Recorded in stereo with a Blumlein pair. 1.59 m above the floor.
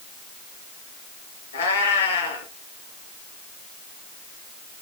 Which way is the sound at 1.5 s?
70° left.